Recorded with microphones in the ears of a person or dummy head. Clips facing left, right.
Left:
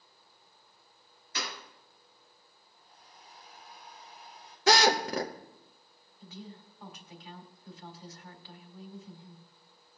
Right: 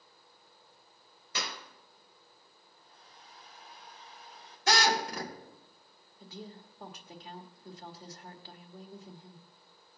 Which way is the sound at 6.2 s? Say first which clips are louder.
Right 1 dB; 35° right (ahead or behind).